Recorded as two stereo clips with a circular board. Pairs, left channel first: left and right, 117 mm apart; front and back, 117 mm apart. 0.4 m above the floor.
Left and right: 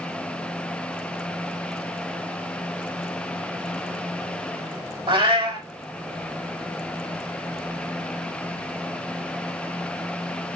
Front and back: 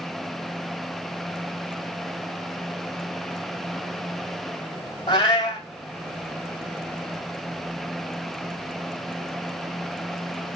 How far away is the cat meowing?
About 1.0 m.